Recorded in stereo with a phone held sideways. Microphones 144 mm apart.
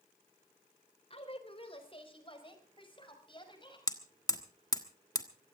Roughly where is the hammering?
Left.